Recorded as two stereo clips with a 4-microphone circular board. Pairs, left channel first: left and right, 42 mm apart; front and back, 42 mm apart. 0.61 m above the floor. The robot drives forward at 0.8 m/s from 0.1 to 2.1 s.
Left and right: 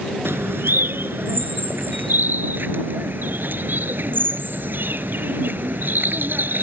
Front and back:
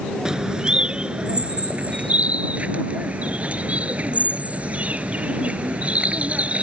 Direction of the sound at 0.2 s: 105° right.